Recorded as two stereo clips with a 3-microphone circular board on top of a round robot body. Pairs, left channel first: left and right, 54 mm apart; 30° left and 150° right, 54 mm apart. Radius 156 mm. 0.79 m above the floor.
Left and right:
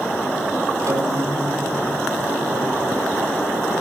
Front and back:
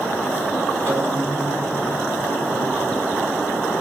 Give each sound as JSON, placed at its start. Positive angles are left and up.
{"t": 0.9, "sound": "a guitar", "azimuth_deg": -110, "distance_m": 5.0}